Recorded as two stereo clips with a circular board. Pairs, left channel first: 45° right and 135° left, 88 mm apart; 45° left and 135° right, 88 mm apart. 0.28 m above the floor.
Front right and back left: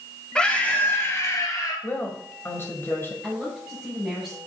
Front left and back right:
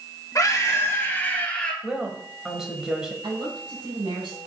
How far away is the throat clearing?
No throat clearing in this recording.